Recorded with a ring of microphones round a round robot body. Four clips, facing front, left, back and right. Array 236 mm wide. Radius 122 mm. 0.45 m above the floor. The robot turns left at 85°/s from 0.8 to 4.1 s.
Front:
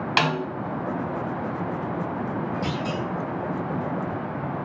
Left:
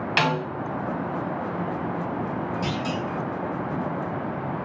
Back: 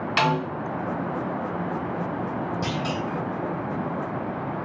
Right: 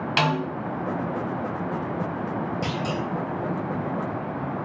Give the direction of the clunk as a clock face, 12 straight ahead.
5 o'clock.